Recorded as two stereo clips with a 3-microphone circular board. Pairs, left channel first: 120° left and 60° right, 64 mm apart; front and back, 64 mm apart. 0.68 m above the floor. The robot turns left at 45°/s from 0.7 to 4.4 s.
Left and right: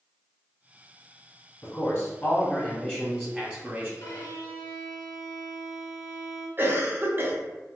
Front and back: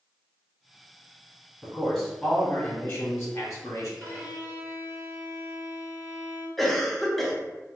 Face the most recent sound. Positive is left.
turn(degrees=-85)